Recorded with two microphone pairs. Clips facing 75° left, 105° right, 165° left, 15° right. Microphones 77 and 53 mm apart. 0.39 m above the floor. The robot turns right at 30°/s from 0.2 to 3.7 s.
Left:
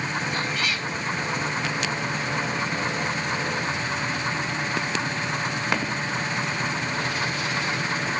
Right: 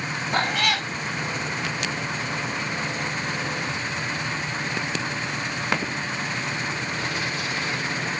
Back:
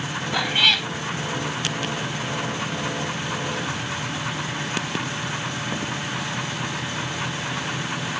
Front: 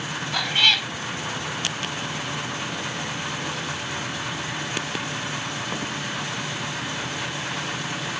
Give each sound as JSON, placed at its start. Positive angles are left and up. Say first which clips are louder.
{"t": 0.3, "sound": "a cat meowing", "louder": "right 4 dB, back 1 dB", "azimuth_deg": -120}